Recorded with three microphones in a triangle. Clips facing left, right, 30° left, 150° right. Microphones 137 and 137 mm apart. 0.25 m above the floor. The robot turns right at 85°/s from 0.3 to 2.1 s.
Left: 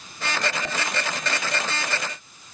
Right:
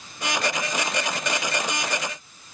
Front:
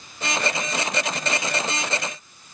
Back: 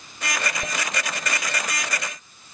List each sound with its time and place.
Only background noise.